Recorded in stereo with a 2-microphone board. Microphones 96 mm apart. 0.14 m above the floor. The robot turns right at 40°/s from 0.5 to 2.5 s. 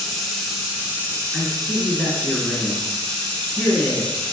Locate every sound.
0.0 s running water: straight behind, 1.6 m; by 4.3 s 100° right, 1.6 m
1.3 s a man speaking: 10° right, 1.3 m; by 4.2 s 35° left, 1.3 m